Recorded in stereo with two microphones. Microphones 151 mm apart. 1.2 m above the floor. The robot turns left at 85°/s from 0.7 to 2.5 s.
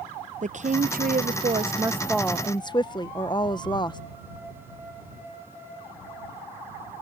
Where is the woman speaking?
60° right; by 4.0 s 150° left.